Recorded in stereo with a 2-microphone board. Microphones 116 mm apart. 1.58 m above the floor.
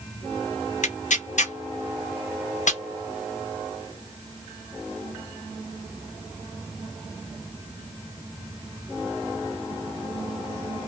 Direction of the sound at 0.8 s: 80° left.